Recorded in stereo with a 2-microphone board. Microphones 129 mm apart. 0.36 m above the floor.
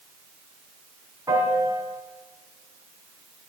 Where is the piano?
25° right (ahead or behind), 2.5 m.